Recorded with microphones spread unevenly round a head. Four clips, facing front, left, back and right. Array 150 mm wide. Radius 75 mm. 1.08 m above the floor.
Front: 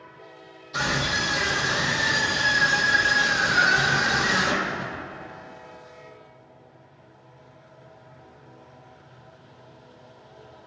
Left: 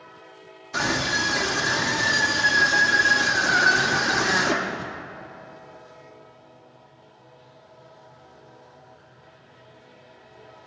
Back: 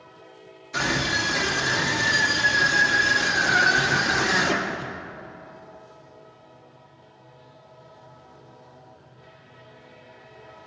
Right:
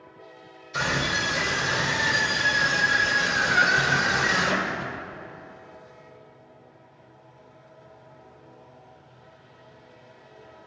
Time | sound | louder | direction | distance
0.7 | a scream | left 2 dB, back 1 dB | 100° left | 1.8 m